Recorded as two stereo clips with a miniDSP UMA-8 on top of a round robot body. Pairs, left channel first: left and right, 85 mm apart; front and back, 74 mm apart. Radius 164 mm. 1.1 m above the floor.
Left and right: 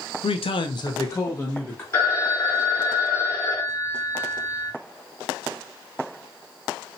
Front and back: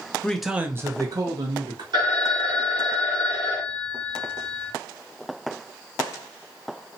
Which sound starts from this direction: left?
A man speaking, at 0.2 s.